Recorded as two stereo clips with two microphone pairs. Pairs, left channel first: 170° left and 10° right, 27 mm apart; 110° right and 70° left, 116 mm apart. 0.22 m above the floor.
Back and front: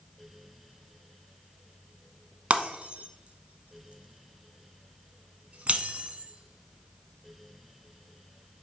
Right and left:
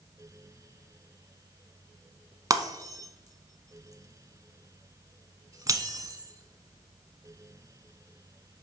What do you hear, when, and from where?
2.5 s breaking glass: 15° left, 1.1 m